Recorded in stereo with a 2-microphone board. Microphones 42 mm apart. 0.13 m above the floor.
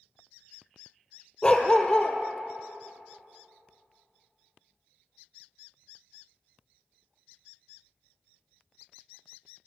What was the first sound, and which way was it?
A dog barking, 15° left (ahead or behind).